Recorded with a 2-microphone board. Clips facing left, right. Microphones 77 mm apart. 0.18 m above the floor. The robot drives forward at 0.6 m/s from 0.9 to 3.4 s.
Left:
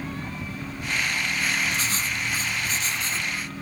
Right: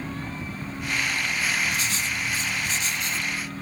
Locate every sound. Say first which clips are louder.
1.7 s writing: even; 35° left (ahead or behind), 0.7 m; by 3.3 s 30° left (ahead or behind), 0.8 m